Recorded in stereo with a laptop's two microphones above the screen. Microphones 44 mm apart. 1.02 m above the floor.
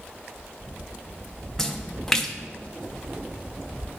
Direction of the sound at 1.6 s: 10° left (ahead or behind).